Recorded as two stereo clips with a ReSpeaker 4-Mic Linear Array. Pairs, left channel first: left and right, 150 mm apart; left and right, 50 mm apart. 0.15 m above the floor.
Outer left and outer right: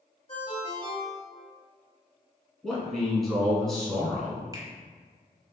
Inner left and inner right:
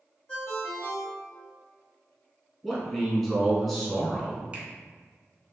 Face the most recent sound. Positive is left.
turn(degrees=-25)  # may be behind; listen again after turning